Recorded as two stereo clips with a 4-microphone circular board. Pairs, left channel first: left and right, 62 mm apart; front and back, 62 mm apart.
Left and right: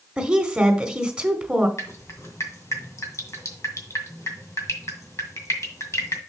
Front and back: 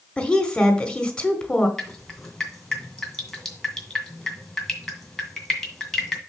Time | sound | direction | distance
0.2 | a woman speaking | 40° right | 1.4 m
1.8 | dripping | 85° left | 2 m